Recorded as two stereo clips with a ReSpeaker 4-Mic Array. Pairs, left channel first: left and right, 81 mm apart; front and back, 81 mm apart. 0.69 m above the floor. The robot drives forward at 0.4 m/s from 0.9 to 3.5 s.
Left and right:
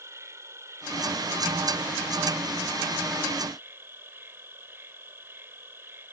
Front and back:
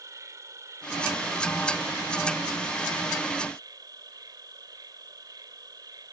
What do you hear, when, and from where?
0.0 s an insect: 140° right; by 6.1 s 150° right